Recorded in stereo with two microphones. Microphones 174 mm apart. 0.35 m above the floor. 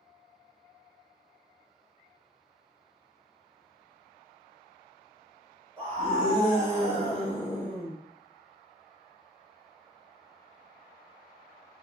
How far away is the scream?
About 1.4 m.